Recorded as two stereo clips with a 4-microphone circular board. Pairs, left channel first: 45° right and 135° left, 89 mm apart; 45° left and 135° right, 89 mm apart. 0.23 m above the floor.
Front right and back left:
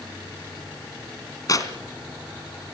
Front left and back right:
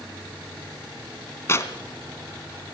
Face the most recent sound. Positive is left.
turn(degrees=-10)